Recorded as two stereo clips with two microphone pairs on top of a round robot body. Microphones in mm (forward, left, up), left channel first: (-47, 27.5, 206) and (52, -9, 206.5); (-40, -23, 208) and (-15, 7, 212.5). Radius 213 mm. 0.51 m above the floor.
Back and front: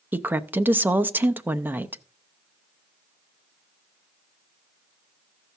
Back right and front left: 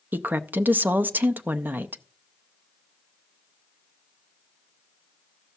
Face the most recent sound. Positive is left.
turn(degrees=45)